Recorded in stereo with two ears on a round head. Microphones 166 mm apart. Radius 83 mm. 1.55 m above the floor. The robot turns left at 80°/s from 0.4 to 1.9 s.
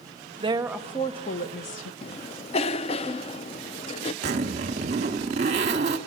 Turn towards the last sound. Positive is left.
turn(degrees=-35)  # may be behind; listen again after turning